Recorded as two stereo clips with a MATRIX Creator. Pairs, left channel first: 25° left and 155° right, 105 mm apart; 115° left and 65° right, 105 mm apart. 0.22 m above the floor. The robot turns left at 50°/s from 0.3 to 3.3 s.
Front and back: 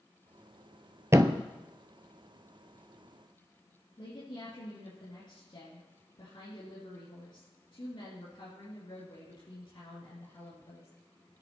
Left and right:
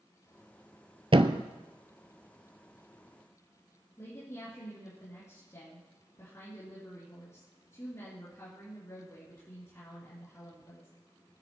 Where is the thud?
95° right, 0.8 m; by 1.4 s 110° right, 0.8 m.